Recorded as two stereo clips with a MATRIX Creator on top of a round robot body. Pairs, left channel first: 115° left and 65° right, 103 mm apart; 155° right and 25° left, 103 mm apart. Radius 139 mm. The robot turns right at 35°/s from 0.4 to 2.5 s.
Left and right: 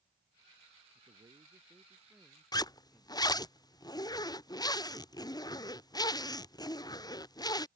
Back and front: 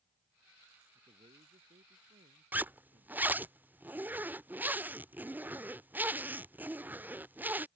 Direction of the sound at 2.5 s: 90° left.